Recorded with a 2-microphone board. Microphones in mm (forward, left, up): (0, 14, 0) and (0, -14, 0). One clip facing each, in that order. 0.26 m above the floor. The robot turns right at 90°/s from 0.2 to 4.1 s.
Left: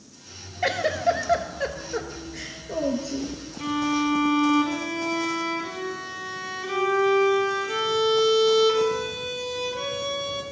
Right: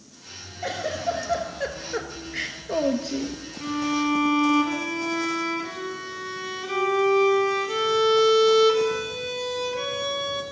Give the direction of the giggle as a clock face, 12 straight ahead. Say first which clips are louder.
Left 5 dB; 9 o'clock.